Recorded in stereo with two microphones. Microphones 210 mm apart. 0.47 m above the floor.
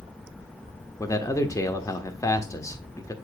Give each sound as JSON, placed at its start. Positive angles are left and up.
{"t": 1.0, "sound": "a man speaking", "side_deg": 15, "distance_m": 0.9}